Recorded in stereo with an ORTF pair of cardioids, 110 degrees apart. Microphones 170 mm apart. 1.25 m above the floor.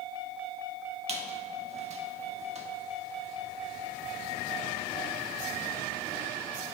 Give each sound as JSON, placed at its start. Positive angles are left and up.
{"t": 1.1, "sound": "a squeak", "azimuth_deg": -40, "distance_m": 1.4}